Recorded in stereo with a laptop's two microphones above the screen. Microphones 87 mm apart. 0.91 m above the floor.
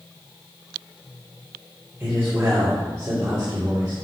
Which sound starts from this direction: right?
A man speaking, at 2.0 s.